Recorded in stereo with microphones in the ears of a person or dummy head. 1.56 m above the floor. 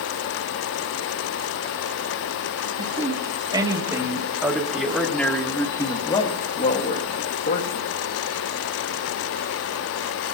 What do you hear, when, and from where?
2.8 s a man speaking: 30° right (ahead or behind), 2.5 m; by 7.8 s 65° left (ahead or behind), 1.8 m